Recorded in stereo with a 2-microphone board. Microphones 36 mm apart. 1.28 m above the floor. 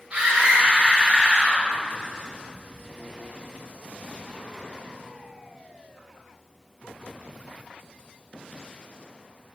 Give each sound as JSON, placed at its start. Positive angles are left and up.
{"t": 0.1, "sound": "a scream", "side_deg": -25, "distance_m": 1.9}